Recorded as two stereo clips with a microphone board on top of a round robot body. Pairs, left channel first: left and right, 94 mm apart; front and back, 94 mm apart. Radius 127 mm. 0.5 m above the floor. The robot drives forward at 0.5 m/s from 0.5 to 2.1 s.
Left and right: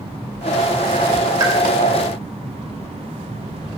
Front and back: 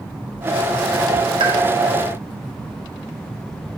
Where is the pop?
145° right, 2.5 m.